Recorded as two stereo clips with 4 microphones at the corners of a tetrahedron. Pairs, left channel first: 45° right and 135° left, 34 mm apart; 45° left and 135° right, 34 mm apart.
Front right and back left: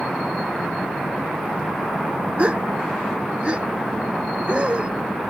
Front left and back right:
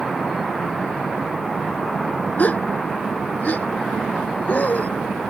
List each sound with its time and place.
2.4 s a gasp: 80° left